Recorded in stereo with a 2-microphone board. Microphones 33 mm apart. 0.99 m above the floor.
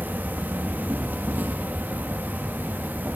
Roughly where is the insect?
Right.